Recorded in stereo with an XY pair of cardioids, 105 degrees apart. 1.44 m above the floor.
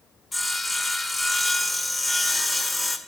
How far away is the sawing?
About 1.3 m.